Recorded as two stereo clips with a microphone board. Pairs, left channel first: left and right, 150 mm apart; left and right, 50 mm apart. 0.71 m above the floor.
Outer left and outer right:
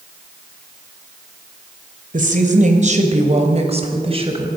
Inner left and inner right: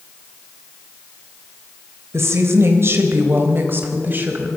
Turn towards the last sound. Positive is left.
turn(degrees=-35)  # may be behind; listen again after turning